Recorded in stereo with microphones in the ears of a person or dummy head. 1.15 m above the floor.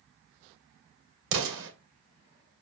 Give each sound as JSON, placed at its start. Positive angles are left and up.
{"t": 1.3, "sound": "an explosion", "side_deg": -75, "distance_m": 2.5}